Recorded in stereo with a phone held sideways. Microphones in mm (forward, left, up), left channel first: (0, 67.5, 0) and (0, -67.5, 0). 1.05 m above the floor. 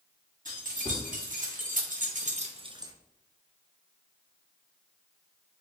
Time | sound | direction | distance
0.5 | keys jangling | 75° right (ahead or behind) | 1.4 m